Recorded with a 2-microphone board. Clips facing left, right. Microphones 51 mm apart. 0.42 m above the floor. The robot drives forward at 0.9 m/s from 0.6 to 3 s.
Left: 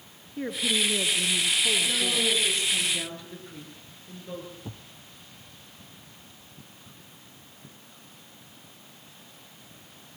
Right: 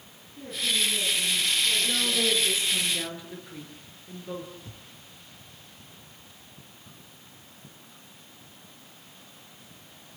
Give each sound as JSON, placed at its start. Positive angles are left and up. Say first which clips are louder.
{"t": 0.4, "sound": "a woman speaking", "louder": "left 2 dB", "side_deg": 60, "distance_m": 5.5}
{"t": 1.8, "sound": "a woman speaking", "louder": "even", "side_deg": -10, "distance_m": 8.0}
{"t": 4.7, "sound": "a thud", "louder": "left 5 dB", "side_deg": 45, "distance_m": 2.0}